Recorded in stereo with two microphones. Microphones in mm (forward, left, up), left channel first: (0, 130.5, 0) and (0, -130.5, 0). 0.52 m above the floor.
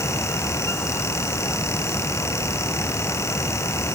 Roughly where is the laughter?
No laughter in this recording.